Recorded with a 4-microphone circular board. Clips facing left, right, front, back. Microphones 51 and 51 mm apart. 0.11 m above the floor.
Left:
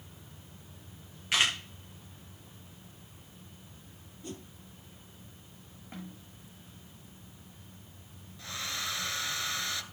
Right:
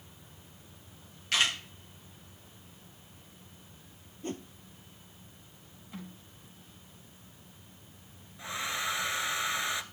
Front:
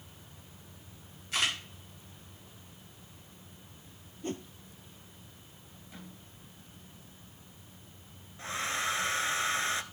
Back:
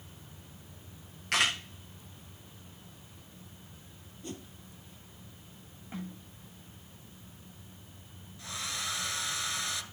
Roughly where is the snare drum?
Behind left.